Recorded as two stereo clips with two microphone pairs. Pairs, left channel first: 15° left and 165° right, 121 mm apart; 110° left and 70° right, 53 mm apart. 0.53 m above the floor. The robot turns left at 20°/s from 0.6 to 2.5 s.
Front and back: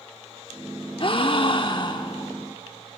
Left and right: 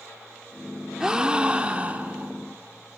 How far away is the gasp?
About 0.9 m.